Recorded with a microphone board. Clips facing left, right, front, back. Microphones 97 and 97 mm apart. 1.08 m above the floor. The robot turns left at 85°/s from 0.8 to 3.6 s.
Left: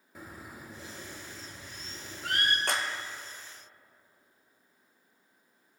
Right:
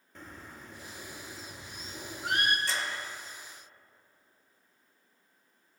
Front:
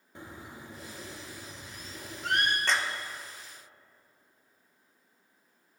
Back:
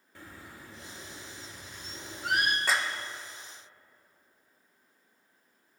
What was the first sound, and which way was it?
A bird, 20° left.